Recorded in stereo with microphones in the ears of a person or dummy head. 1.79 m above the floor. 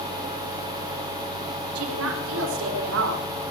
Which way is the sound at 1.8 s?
80° right.